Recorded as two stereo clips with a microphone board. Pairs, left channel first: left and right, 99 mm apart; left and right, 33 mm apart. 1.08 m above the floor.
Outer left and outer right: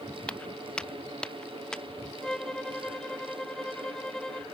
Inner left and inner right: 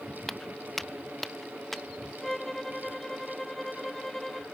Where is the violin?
5° left (ahead or behind).